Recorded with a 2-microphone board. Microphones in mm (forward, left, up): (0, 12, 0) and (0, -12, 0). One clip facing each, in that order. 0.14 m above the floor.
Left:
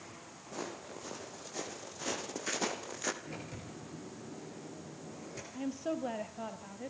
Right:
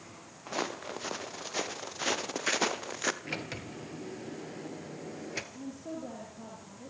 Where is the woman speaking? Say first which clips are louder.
Left 4 dB; 55° left (ahead or behind), 3.5 m.